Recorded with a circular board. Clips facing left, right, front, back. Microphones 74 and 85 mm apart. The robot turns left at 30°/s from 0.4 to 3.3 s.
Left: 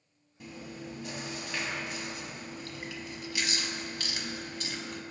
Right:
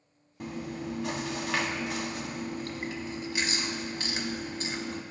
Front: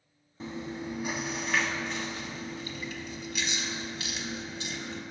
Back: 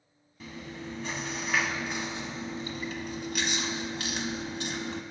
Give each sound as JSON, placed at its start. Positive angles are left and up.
{"t": 0.4, "sound": "chewing", "azimuth_deg": -60, "distance_m": 0.5}